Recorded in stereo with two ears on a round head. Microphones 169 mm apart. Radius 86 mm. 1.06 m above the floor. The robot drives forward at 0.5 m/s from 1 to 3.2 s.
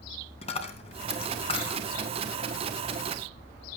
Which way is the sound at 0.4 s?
35° left (ahead or behind).